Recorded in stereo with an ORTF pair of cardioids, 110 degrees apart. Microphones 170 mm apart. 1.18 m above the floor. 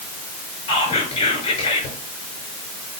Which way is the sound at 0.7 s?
40° left.